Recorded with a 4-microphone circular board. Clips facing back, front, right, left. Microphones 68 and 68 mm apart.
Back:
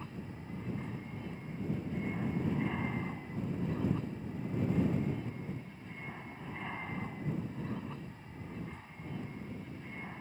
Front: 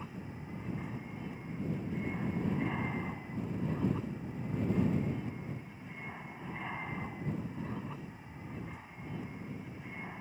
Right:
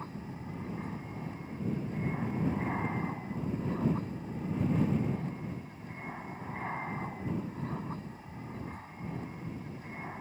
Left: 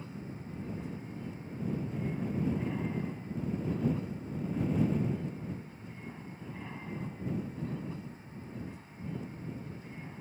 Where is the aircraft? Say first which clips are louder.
Even, right 2 dB; 80° right.